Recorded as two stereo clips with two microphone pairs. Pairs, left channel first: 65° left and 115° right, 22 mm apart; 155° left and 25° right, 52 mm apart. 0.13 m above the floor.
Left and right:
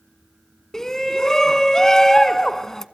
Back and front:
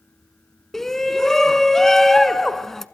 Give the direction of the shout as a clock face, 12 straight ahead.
9 o'clock.